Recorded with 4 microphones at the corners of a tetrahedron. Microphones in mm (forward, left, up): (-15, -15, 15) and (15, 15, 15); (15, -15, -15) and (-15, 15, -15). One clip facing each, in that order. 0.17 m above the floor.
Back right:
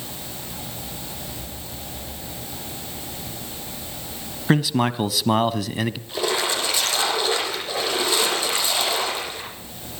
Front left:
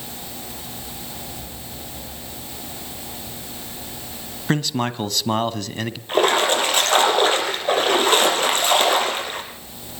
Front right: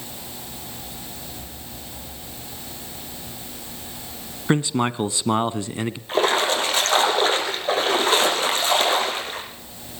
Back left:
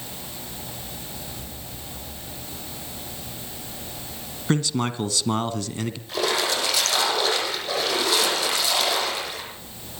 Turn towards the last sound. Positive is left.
turn(degrees=5)